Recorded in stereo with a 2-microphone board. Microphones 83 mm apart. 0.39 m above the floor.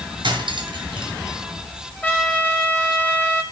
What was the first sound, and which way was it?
Cutlery clinking, 65° right (ahead or behind).